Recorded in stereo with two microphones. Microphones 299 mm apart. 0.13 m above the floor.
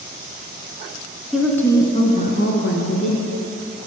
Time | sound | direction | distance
1.3 | a woman speaking | 5° right (ahead or behind) | 1.3 m